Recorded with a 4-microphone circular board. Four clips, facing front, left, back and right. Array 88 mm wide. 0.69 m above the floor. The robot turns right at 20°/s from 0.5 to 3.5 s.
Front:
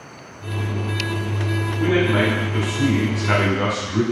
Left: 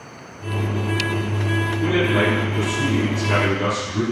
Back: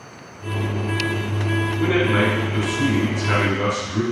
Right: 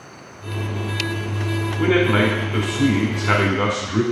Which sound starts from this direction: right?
A man speaking, at 1.8 s.